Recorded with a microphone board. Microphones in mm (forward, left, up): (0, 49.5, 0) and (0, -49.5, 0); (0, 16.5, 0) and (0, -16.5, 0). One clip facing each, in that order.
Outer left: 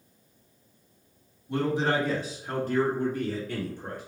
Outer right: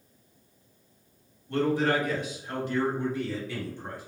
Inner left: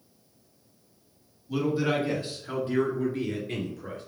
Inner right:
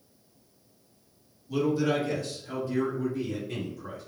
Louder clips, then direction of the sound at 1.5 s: Outer right 1 dB, even; 10° left (ahead or behind).